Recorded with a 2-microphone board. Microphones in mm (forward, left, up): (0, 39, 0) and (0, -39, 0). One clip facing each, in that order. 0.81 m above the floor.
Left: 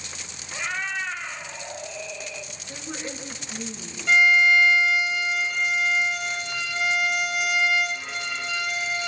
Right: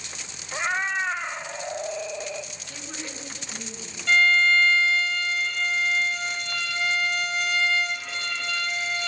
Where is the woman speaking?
15° left (ahead or behind), 8.5 m.